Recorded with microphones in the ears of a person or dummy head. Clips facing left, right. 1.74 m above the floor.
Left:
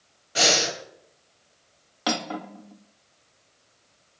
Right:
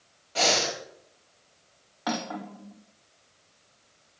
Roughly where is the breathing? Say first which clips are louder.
Left 2 dB; left.